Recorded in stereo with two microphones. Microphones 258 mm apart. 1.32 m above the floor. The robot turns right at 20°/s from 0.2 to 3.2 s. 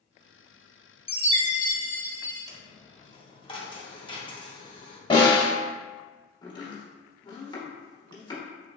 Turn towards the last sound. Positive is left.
turn(degrees=15)  # may be behind; listen again after turning